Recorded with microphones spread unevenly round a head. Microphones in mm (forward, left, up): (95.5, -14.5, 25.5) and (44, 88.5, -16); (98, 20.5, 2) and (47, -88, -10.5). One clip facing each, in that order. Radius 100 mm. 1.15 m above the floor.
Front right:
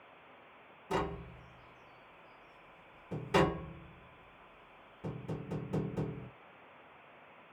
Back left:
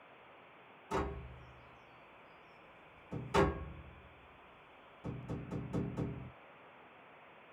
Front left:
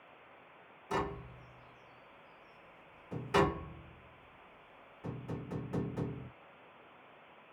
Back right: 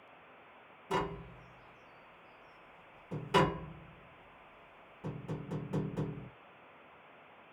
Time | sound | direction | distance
0.9 | tapping | 40° right | 1.1 m